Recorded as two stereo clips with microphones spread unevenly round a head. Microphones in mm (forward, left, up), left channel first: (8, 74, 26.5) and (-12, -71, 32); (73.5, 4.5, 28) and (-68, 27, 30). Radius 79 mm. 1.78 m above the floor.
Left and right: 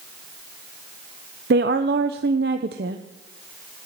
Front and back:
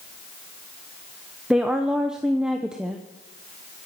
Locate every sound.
1.5 s a woman speaking: 105° right, 0.9 m